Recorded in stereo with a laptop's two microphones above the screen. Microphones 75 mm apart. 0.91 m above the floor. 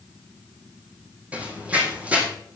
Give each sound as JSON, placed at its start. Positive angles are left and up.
{"t": 1.3, "sound": "running footsteps", "side_deg": -15, "distance_m": 2.0}